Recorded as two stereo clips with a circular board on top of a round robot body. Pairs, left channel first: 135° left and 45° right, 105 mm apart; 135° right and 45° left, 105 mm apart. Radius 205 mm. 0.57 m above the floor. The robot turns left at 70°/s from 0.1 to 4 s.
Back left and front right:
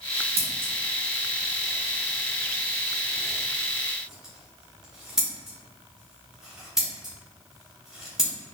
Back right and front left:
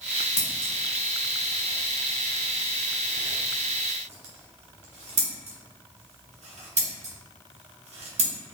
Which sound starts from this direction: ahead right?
Scissors, at 0.4 s.